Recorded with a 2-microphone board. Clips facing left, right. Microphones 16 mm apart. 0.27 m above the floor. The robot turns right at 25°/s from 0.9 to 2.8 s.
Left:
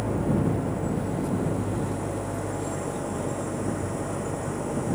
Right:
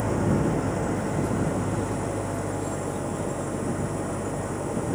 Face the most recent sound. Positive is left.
turn(degrees=-5)